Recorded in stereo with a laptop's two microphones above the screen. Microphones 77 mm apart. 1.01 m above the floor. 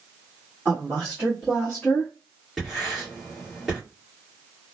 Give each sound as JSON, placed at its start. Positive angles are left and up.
{"t": 0.7, "sound": "a woman speaking", "side_deg": -20, "distance_m": 1.6}
{"t": 2.6, "sound": "writing", "side_deg": 0, "distance_m": 1.6}